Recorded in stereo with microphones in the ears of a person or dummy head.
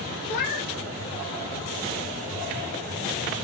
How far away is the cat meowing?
About 1.1 m.